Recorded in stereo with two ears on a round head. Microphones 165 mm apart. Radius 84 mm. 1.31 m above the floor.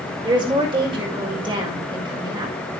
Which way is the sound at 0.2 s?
25° right (ahead or behind).